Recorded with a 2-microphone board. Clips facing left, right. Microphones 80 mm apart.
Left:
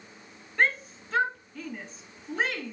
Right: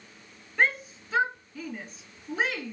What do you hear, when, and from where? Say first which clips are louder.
0.6 s a shout: even; centre (ahead or behind), 2 m